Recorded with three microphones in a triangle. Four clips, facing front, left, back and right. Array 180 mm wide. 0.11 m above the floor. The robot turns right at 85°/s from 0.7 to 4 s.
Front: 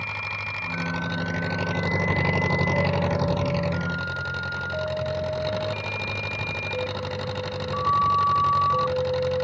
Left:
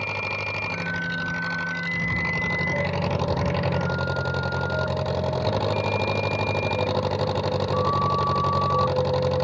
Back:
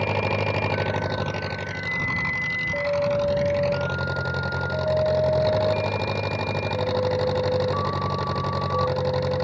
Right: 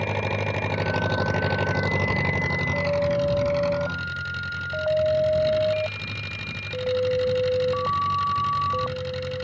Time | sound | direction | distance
0.0 | an engine running | 160° right | ?